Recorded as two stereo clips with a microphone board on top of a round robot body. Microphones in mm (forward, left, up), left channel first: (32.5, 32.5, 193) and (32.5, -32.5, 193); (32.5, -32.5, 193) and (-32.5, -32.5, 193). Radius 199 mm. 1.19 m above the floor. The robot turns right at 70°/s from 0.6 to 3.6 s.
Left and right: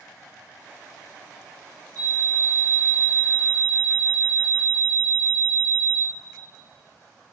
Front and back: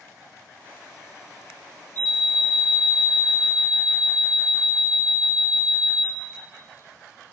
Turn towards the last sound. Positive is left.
turn(degrees=155)